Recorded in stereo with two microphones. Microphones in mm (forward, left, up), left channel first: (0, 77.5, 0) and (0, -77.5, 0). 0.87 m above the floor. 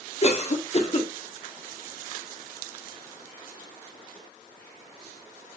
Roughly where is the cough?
Left.